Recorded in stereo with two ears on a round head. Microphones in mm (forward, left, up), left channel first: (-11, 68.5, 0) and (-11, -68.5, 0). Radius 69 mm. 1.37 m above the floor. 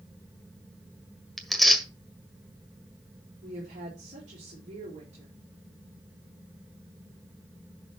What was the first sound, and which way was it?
Tearing paper, centre (ahead or behind).